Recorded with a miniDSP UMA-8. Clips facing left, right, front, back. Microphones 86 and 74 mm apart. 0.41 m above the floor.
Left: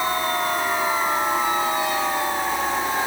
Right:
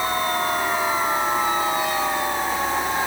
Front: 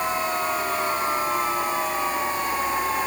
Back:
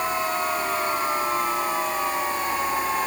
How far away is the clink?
No clink in this recording.